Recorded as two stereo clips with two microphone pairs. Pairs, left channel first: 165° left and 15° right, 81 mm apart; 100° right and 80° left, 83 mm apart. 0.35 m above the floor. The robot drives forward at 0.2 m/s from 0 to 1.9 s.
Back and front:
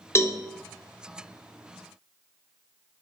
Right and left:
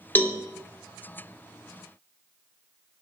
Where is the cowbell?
150° right, 0.6 m; by 0.4 s 155° right, 0.6 m.